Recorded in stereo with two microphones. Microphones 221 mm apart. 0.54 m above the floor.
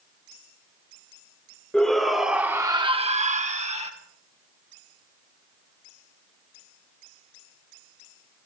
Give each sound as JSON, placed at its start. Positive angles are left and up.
{"t": 1.7, "sound": "a shout", "side_deg": 5, "distance_m": 1.6}